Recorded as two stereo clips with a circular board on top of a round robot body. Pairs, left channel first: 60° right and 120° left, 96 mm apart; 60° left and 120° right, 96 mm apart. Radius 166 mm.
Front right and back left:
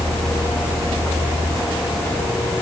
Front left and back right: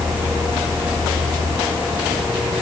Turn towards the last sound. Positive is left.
No sound to turn to.